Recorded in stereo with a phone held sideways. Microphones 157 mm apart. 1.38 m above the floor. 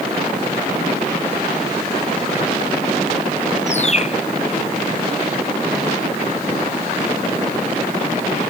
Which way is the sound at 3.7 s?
45° left (ahead or behind).